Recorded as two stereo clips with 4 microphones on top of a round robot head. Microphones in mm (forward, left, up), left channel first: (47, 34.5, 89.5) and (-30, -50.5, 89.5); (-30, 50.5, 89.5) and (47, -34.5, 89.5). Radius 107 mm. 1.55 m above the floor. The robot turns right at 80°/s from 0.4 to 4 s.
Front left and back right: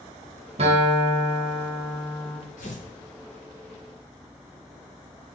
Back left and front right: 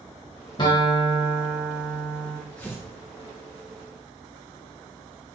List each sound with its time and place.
0.6 s a guitar: 170° right, 1.4 m; by 2.4 s 25° right, 1.4 m
2.6 s tearing paper: 50° left, 0.8 m; by 2.9 s 75° left, 0.8 m